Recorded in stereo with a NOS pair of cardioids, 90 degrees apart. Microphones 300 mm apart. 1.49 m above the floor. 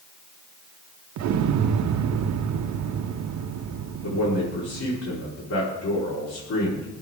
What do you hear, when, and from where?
1.2 s an explosion: 70° right, 0.7 m
4.0 s a man speaking: 55° left, 4 m